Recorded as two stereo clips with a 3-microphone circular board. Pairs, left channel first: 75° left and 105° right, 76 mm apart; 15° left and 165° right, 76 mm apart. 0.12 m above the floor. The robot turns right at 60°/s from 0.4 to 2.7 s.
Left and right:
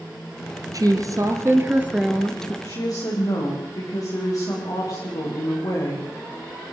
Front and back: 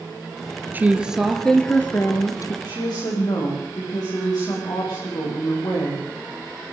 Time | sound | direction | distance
0.7 | a woman speaking | 110° right | 2.0 m
2.6 | a woman speaking | 35° left | 8.5 m